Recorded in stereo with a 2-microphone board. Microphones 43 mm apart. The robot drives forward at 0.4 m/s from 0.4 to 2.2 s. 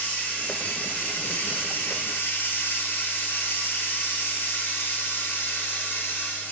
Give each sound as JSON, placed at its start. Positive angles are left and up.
{"t": 0.0, "sound": "running water", "side_deg": 40, "distance_m": 1.6}